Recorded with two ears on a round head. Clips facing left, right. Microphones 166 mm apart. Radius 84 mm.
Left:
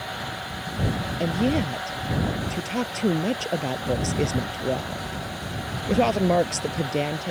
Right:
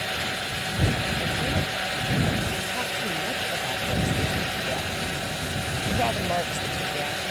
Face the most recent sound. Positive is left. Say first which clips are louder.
# left 6 dB
turn(degrees=55)  # may be behind; listen again after turning